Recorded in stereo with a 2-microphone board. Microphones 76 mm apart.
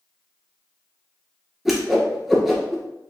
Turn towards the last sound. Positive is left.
turn(degrees=-5)  # may be behind; listen again after turning